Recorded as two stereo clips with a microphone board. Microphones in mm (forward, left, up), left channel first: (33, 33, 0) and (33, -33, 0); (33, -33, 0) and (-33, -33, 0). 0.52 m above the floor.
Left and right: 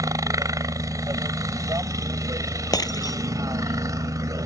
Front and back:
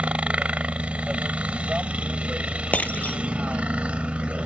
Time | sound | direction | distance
0.0 | a helicopter | 110° right | ?
2.7 | breaking glass | 65° left | ?